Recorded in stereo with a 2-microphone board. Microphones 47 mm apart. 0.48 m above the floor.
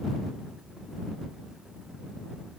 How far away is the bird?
I don't hear a bird.